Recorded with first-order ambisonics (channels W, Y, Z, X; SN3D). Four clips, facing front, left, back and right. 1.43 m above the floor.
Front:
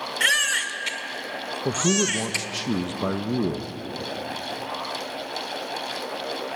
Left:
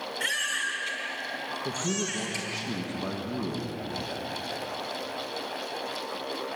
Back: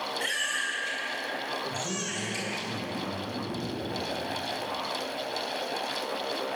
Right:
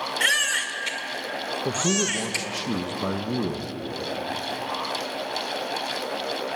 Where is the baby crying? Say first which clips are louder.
Right 6 dB, front 10 dB; 35° right, 1.7 m.